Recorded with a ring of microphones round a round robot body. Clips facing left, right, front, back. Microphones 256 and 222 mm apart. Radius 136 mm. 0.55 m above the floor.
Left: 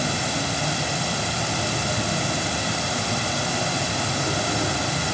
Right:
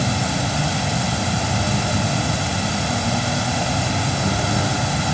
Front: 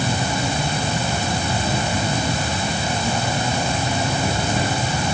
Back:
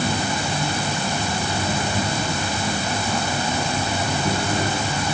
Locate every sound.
0.0 s an insect: 70° right, 4.5 m